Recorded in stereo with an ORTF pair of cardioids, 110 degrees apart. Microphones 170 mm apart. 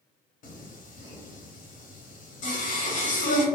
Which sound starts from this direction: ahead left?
Singing, at 0.4 s.